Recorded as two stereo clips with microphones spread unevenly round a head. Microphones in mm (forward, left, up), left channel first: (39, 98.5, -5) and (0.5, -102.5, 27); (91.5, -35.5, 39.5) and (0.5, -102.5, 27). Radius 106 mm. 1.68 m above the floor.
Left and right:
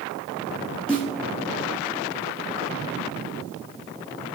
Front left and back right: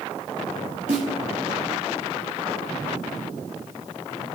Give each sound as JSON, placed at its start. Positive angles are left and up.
{"t": 0.9, "sound": "a snare drum", "azimuth_deg": 170, "distance_m": 2.0}